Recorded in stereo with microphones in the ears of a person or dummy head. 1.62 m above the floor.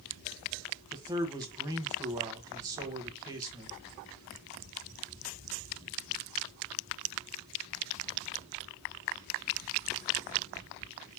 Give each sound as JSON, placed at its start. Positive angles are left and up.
{"t": 0.9, "sound": "a man speaking", "side_deg": -20, "distance_m": 1.1}